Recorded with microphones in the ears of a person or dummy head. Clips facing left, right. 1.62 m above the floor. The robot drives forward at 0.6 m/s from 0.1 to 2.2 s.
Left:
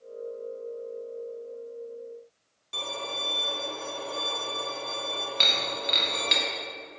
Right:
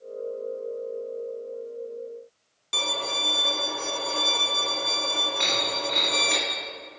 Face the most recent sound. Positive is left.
turn(degrees=55)  # may be behind; listen again after turning